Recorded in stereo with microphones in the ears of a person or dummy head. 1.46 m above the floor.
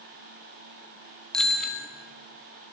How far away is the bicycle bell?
About 2.5 m.